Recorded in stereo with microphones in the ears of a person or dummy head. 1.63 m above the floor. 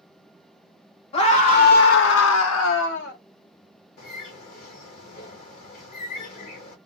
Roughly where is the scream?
Left.